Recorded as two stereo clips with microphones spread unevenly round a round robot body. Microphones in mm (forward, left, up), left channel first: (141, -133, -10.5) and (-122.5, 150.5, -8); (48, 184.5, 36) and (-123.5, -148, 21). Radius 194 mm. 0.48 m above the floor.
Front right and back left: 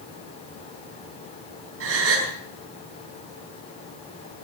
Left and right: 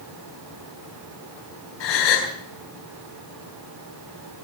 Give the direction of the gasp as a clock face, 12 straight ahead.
9 o'clock.